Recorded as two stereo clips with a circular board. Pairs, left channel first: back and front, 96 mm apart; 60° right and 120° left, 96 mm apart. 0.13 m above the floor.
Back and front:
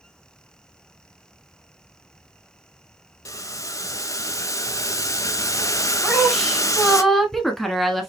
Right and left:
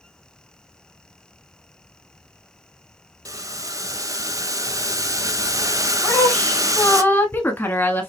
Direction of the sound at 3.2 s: 150° left.